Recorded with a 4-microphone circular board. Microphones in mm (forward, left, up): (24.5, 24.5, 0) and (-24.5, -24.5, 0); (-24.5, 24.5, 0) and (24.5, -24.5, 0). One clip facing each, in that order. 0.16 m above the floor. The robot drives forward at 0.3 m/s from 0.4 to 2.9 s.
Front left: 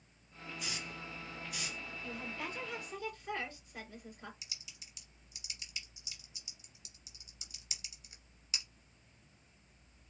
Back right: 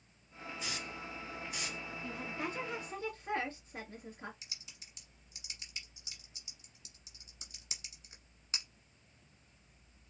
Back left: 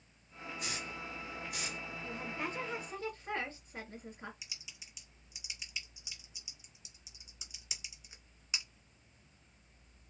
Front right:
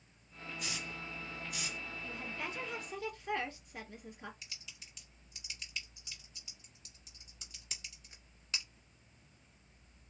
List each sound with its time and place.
0.6 s a hiss: 170° left, 2.5 m; by 1.8 s 175° left, 3 m
2.0 s a woman speaking: straight behind, 2.0 m
4.4 s typing on a keyboard: 155° right, 1.4 m